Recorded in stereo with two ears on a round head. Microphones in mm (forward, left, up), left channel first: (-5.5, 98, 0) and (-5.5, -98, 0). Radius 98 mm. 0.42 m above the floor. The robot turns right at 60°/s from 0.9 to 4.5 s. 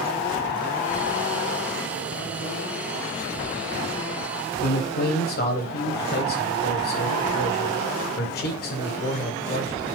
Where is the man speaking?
45° left (ahead or behind), 1.7 m.